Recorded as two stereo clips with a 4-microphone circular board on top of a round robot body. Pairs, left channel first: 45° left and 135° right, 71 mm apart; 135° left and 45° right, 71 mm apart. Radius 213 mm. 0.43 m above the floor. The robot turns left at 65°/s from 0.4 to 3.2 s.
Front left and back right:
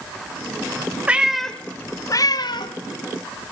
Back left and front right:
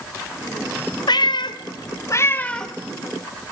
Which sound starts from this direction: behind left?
A cat meowing, at 1.1 s.